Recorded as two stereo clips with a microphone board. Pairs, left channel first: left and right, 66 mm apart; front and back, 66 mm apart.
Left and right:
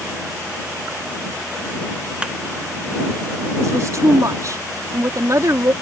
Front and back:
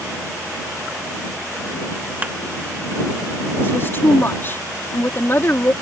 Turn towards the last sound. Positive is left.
turn(degrees=-55)